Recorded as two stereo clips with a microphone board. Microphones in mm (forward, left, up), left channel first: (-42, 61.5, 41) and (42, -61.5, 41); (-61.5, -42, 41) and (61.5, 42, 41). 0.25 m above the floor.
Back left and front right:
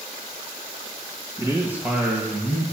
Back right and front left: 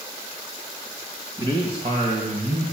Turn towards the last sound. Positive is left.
turn(degrees=35)